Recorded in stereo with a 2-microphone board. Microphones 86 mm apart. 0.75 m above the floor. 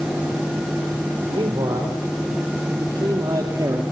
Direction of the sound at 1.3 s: 70° right (ahead or behind).